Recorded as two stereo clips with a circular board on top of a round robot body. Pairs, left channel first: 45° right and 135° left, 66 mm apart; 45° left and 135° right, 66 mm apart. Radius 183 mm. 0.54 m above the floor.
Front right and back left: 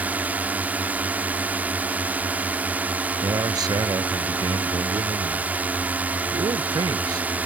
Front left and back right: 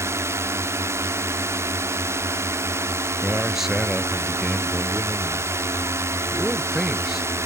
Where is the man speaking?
140° left.